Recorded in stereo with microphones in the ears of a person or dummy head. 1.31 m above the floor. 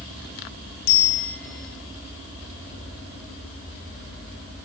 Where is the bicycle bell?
55° left (ahead or behind), 4 m.